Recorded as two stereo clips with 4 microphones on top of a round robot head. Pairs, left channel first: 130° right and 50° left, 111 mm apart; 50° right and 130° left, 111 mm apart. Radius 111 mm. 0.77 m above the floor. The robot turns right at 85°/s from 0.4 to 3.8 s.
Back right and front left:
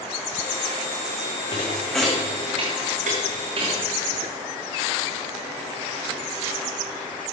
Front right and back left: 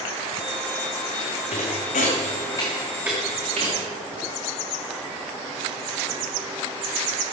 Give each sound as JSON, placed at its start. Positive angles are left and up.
{"t": 1.5, "sound": "a thud", "azimuth_deg": -80, "distance_m": 3.0}